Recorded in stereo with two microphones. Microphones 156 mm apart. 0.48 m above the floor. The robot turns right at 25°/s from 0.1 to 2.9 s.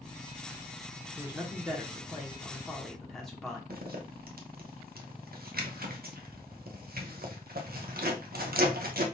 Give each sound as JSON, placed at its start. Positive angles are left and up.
{"t": 1.2, "sound": "a man speaking", "side_deg": -10, "distance_m": 0.9}
{"t": 3.7, "sound": "a zipper", "side_deg": -75, "distance_m": 0.7}